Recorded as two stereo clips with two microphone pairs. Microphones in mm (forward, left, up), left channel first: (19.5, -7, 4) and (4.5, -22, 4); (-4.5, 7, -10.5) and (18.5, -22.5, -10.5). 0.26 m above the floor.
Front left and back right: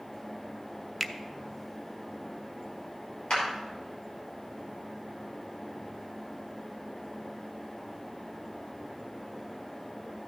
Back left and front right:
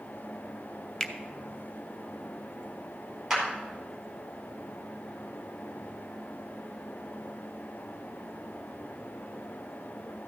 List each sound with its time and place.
1.0 s a finger snap: 90° left, 0.7 m
3.3 s a clap: 30° left, 4.5 m